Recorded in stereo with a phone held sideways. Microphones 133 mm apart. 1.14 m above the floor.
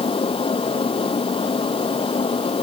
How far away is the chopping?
I don't hear chopping.